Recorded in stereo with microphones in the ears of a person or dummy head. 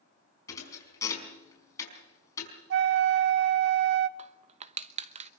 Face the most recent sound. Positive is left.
turn(degrees=-30)  # may be behind; listen again after turning